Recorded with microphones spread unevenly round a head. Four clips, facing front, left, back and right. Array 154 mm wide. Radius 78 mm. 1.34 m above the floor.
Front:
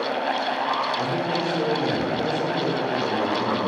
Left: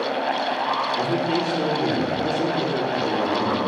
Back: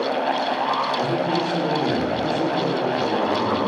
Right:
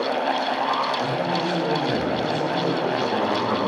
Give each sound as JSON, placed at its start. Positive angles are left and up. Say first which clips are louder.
{"t": 1.0, "sound": "a man speaking", "louder": "left 1 dB, back 3 dB", "azimuth_deg": 125, "distance_m": 4.5}